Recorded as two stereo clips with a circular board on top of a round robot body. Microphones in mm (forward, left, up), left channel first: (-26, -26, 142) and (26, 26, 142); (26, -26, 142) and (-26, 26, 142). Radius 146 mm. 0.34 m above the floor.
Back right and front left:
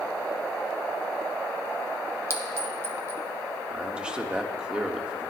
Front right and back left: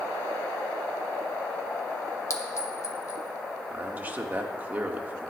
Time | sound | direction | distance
2.3 | a clink | 5° right | 1.4 m
3.7 | a man speaking | 105° left | 1.5 m